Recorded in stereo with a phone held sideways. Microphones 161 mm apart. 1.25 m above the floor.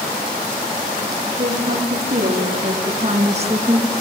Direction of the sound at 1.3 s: 80° right.